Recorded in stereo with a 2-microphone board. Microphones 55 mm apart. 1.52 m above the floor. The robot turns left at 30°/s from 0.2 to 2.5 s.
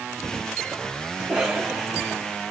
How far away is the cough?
About 1.9 m.